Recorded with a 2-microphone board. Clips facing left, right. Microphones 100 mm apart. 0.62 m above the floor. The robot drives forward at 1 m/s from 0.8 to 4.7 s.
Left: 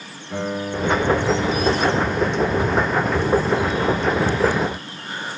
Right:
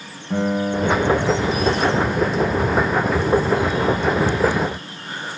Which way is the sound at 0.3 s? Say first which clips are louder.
Right 5 dB; 50° right (ahead or behind).